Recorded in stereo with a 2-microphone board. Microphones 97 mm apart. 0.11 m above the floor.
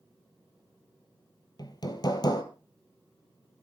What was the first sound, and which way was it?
Hammering, 45° left (ahead or behind).